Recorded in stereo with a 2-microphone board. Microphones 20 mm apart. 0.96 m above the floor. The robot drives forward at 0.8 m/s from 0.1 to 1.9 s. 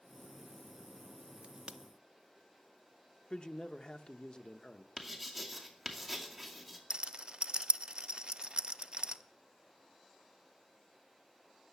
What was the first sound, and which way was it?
A crack, 80° right.